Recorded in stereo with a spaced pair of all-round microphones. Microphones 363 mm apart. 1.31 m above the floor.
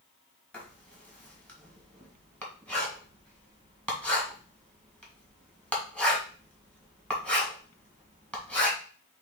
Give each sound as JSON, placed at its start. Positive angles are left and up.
{"t": 0.5, "sound": "writing", "side_deg": 5, "distance_m": 1.5}